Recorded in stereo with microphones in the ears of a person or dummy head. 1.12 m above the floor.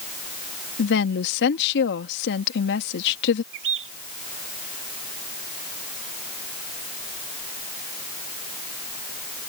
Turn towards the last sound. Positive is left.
turn(degrees=-65)  # may be behind; listen again after turning